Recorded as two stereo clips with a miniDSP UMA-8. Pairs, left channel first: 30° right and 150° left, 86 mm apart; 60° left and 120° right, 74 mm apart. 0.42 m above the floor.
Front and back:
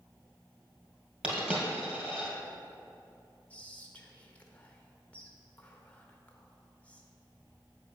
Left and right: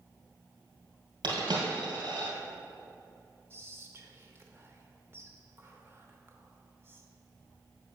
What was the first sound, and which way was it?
A dropped coin, 135° right.